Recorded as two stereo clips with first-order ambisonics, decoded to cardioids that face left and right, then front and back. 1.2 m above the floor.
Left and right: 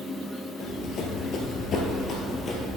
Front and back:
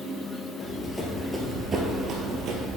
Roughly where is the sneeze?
No sneeze in this recording.